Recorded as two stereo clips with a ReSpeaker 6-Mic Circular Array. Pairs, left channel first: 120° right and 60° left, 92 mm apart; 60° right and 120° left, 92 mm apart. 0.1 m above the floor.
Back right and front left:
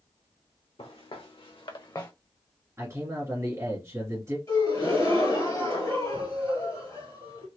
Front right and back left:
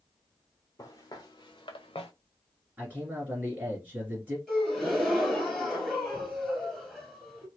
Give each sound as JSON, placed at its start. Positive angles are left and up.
{"t": 0.8, "sound": "footsteps", "azimuth_deg": -115, "distance_m": 1.2}
{"t": 2.8, "sound": "a man speaking", "azimuth_deg": 70, "distance_m": 2.0}
{"t": 4.5, "sound": "a gasp", "azimuth_deg": -150, "distance_m": 2.0}